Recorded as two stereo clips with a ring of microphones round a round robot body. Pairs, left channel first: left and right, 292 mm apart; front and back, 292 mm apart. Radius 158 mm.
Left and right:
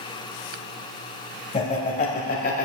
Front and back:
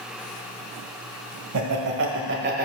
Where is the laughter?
155° left, 1.8 m; by 2.6 s 135° left, 1.4 m.